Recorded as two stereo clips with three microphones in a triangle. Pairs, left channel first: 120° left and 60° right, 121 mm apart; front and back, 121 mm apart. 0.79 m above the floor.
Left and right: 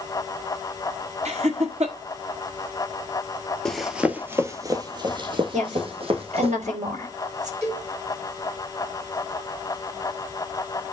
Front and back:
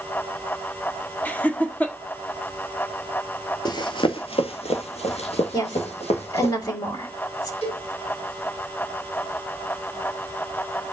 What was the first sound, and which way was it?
Laughter, 75° right.